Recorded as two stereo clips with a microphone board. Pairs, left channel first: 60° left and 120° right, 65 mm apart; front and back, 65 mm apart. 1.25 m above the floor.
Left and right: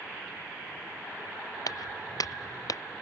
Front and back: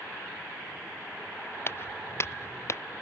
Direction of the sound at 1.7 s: 50° left.